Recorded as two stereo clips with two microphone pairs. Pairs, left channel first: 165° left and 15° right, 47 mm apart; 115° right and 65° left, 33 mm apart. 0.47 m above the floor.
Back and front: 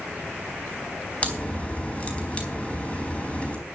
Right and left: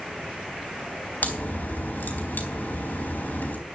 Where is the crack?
130° right, 4 m.